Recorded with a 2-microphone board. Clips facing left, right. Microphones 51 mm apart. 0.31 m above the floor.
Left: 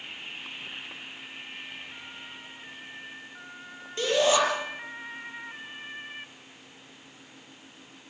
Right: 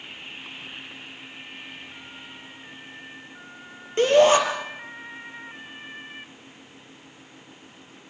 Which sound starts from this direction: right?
A shout, at 4.0 s.